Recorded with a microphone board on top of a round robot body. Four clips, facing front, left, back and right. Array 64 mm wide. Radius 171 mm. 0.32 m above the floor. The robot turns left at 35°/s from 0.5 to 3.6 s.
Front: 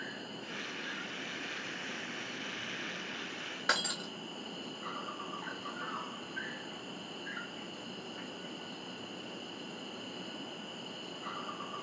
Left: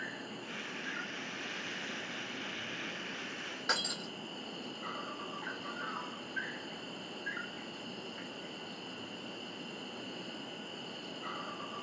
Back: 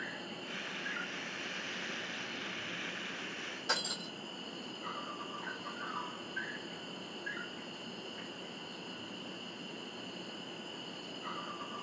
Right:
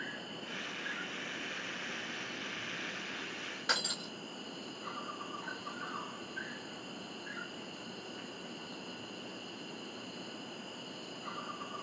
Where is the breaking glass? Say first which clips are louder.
Even, front 5 dB; 10° left, 0.7 m.